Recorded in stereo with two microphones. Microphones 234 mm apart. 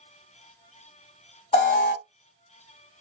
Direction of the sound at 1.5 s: 25° left (ahead or behind).